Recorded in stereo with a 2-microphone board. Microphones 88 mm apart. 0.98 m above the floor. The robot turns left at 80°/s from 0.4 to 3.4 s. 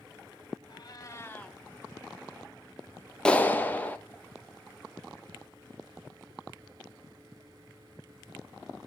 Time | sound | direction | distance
0.7 | a cat meowing | 75° left | 1.0 m
3.2 | a clap | 10° left (ahead or behind) | 0.8 m